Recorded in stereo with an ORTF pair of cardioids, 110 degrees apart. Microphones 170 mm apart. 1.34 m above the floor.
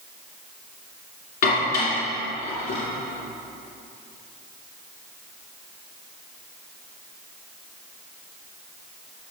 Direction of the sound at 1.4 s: 65° left.